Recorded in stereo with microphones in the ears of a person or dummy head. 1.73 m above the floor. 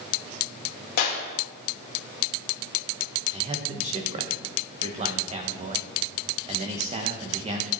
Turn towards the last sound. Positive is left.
turn(degrees=-35)  # may be behind; listen again after turning